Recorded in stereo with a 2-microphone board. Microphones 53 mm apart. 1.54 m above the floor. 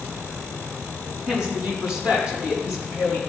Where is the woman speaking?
15° right (ahead or behind), 4 m; by 3.2 s 30° right (ahead or behind), 5.5 m.